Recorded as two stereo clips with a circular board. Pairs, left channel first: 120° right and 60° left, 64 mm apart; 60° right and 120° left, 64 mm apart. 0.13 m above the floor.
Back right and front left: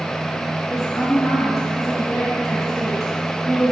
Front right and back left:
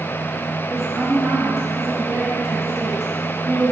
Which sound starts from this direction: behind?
A woman speaking, at 0.7 s.